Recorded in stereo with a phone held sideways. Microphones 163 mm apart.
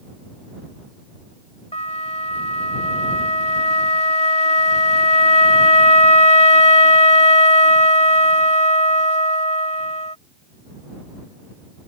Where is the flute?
45° left (ahead or behind).